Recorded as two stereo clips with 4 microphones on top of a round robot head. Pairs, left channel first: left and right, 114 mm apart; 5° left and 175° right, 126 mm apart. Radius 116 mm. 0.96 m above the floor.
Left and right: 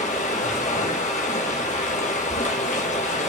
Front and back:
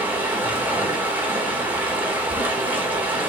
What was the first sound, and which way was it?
Running water, 105° left.